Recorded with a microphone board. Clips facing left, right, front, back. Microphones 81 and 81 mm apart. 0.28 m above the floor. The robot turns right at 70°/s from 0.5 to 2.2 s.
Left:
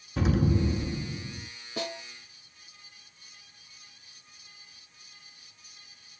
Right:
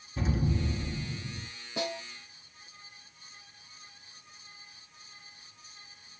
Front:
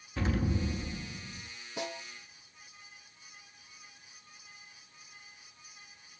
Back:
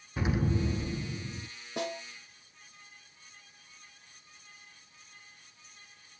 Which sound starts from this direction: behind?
A snare drum, at 1.8 s.